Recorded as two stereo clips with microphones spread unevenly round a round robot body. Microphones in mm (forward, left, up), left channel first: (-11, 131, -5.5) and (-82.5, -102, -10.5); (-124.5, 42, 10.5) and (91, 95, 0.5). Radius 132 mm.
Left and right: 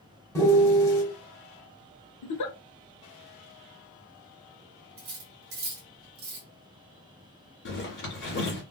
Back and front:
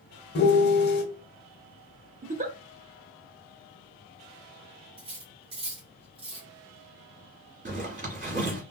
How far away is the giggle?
About 0.6 m.